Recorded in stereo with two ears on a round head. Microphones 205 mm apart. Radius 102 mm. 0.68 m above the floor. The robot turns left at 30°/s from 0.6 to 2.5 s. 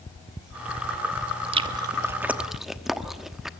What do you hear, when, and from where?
1.5 s chewing: 25° right (ahead or behind), 1.0 m; by 3.5 s centre (ahead or behind), 1.0 m